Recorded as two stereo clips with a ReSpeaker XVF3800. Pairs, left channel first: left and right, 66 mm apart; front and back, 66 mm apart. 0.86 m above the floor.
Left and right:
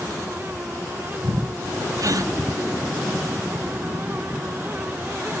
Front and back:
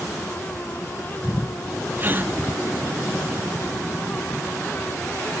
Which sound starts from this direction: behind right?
A gasp, at 2.0 s.